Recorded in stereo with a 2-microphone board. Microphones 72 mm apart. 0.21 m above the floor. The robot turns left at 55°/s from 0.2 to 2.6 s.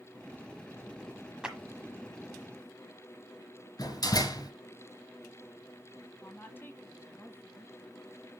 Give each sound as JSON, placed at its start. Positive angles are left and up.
{"t": 1.4, "sound": "a clap", "side_deg": -10, "distance_m": 1.2}
{"t": 3.8, "sound": "a door slam", "side_deg": 65, "distance_m": 1.8}
{"t": 6.2, "sound": "a woman speaking", "side_deg": 30, "distance_m": 1.2}